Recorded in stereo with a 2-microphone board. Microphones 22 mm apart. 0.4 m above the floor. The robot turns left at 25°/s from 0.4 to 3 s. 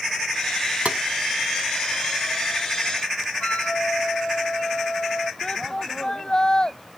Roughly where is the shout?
Left.